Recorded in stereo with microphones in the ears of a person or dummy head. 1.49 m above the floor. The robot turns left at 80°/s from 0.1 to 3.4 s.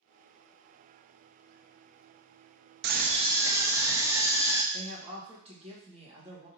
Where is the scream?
120° right, 0.6 m; by 4.6 s 165° right, 0.6 m.